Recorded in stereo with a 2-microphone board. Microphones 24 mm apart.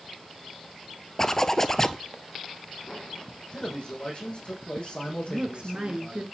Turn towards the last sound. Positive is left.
turn(degrees=-40)  # may be behind; listen again after turning